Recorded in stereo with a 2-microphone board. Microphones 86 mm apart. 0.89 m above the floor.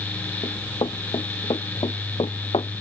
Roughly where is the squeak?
No squeak in this recording.